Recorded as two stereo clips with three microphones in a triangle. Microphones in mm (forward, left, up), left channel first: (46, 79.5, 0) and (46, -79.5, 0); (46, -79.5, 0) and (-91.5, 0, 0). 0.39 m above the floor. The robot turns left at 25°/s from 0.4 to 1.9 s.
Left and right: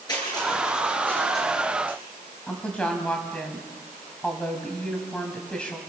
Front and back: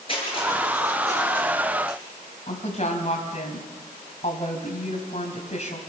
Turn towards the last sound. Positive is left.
turn(degrees=5)